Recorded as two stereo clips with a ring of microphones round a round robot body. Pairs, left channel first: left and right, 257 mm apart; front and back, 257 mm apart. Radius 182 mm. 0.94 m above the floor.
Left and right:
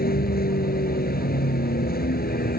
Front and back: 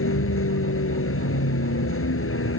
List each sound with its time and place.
0.0 s a vehicle: 35° left